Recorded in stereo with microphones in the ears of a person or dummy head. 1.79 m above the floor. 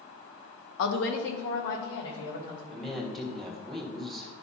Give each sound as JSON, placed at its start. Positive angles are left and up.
{"t": 0.8, "sound": "a woman speaking", "side_deg": 70, "distance_m": 1.2}
{"t": 2.7, "sound": "a woman speaking", "side_deg": 15, "distance_m": 2.0}